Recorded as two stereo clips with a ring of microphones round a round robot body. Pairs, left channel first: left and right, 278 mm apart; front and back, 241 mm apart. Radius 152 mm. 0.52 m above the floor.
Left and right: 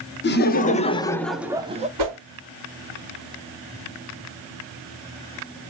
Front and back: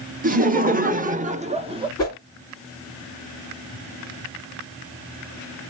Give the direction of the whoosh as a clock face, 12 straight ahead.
3 o'clock.